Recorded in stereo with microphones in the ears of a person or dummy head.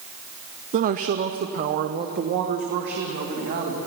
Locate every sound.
0.7 s a woman speaking: 35° right (ahead or behind), 0.5 m; by 3.8 s 50° right (ahead or behind), 2.5 m